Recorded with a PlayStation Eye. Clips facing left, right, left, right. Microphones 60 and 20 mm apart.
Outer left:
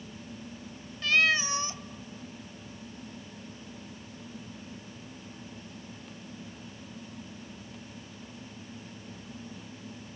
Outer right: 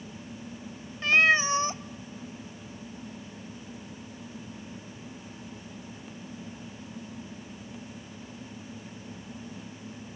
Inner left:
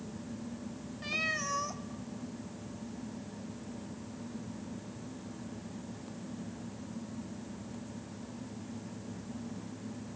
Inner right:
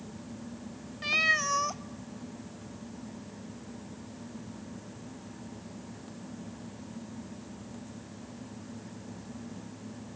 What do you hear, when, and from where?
1.0 s a cat meowing: 30° right (ahead or behind), 0.6 m